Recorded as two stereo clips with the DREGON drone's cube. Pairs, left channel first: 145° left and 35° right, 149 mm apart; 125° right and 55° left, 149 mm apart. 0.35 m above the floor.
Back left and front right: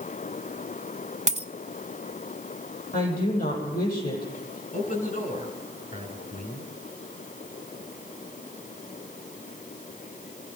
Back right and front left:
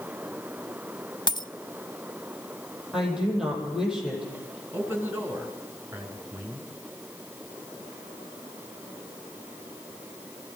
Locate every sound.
1.3 s a dropped coin: 65° right, 0.7 m
2.9 s a woman speaking: 140° left, 9 m
4.7 s a man speaking: 130° left, 4.5 m